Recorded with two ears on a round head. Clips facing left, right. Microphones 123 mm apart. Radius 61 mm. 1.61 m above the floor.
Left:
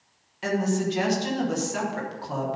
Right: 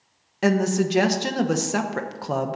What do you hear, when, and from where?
0.4 s a woman speaking: 65° right (ahead or behind), 1.0 m